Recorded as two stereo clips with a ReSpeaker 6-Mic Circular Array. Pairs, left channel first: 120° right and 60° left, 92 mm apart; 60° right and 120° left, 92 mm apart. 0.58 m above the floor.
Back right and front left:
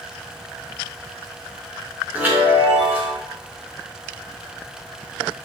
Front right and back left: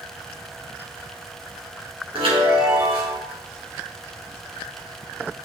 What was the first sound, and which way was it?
A chime, 130° left.